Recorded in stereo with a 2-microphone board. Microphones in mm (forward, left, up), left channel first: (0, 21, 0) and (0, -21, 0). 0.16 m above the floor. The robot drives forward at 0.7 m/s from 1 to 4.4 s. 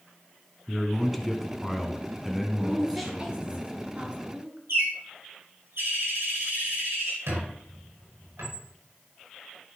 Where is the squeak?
90° right, 5 m.